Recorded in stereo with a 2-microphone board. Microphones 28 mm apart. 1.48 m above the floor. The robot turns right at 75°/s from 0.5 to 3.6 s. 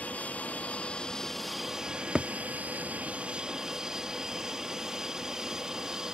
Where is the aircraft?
105° left; by 6.2 s 25° right.